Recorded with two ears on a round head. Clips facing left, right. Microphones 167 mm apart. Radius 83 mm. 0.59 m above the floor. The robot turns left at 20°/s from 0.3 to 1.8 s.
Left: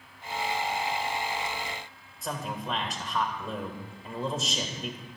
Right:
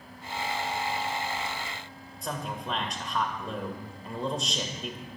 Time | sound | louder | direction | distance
2.2 | a man speaking | even | centre (ahead or behind) | 2.5 m